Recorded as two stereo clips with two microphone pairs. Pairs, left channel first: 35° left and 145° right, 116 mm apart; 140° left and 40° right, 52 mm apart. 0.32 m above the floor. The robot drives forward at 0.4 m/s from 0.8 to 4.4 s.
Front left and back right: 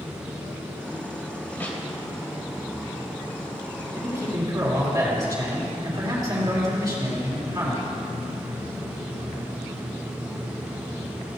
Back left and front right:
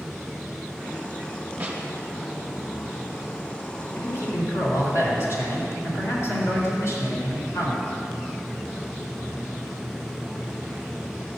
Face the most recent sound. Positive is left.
turn(degrees=160)